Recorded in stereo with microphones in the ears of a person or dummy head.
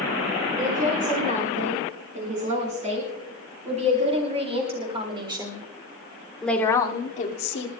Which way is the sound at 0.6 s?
40° right (ahead or behind).